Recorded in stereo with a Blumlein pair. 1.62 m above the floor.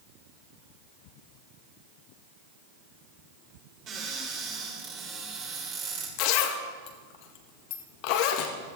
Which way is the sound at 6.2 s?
45° left.